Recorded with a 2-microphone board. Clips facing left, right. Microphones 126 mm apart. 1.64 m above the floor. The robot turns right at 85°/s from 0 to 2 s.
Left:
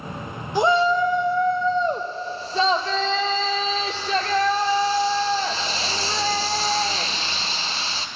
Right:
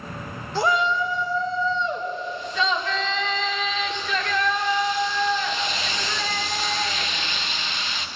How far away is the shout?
About 0.8 m.